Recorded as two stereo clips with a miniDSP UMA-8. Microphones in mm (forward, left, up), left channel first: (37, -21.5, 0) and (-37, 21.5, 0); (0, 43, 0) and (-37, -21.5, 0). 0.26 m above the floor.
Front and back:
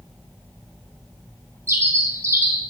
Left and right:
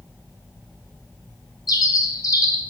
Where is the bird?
90° left, 0.9 m.